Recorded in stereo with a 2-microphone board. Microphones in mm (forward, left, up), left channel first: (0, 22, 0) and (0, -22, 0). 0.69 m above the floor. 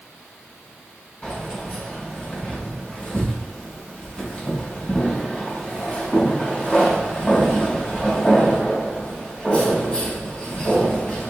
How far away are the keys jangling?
About 3 m.